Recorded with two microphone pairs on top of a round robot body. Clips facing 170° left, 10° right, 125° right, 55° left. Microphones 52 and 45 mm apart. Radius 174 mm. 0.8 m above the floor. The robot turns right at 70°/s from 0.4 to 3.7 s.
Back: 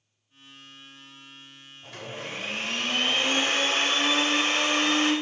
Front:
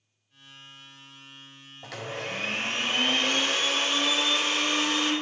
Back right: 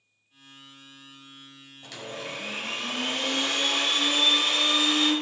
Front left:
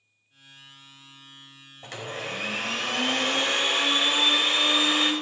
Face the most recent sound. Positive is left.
turn(degrees=125)